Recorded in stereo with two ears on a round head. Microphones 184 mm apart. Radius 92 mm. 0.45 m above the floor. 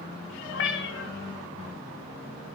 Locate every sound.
0.5 s a cat meowing: 65° left (ahead or behind), 1.5 m